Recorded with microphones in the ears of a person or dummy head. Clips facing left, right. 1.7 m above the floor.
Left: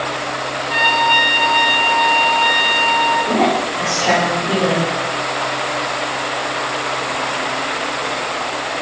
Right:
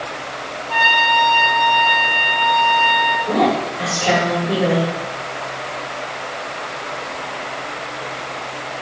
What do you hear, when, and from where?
0.7 s a trumpet: 25° left (ahead or behind), 1.1 m
3.3 s a woman speaking: 10° left (ahead or behind), 1.6 m